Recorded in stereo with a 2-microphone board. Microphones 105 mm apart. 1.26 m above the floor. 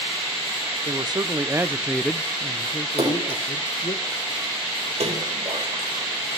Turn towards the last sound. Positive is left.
turn(degrees=-80)